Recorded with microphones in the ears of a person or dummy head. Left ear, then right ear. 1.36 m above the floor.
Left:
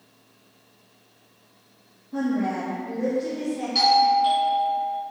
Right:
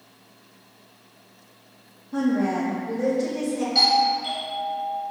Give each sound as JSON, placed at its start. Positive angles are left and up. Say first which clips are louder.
{"t": 2.1, "sound": "a woman speaking", "louder": "right 2 dB", "side_deg": -30, "distance_m": 0.9}
{"t": 3.8, "sound": "a doorbell", "louder": "left 2 dB", "side_deg": 15, "distance_m": 0.9}